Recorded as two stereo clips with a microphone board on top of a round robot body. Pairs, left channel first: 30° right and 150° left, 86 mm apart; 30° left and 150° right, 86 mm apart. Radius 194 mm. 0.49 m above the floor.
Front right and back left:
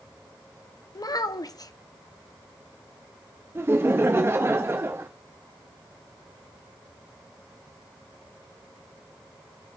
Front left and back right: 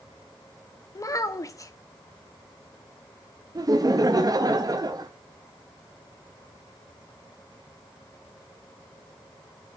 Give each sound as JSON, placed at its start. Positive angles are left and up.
{"t": 0.9, "sound": "a child speaking", "azimuth_deg": -5, "distance_m": 1.2}
{"t": 3.5, "sound": "laughter", "azimuth_deg": -160, "distance_m": 1.0}